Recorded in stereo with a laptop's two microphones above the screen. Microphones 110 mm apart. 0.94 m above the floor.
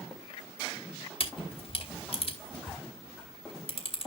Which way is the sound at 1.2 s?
55° left (ahead or behind).